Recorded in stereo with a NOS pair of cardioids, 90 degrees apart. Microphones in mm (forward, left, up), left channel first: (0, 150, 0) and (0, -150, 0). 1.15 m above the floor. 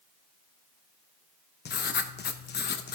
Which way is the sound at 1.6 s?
35° left.